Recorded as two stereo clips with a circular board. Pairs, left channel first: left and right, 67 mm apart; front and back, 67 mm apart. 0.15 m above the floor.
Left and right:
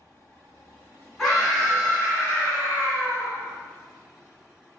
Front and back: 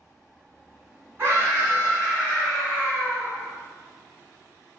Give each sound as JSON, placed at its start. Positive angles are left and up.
{"t": 1.2, "sound": "a scream", "azimuth_deg": 180, "distance_m": 1.9}